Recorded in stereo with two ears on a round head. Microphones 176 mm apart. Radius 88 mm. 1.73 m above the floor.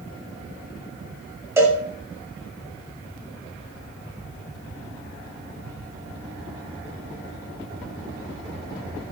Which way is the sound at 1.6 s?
15° right (ahead or behind).